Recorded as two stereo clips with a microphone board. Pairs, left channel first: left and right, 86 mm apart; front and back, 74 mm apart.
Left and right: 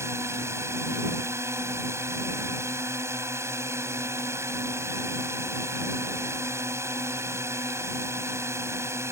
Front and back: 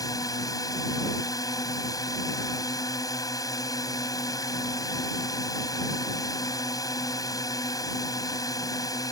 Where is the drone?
35° right.